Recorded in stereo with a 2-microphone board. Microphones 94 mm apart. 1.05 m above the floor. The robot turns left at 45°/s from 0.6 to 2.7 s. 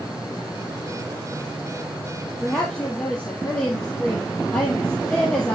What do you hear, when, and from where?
2.4 s a woman speaking: centre (ahead or behind), 1.6 m; by 5.5 s 15° left (ahead or behind), 1.6 m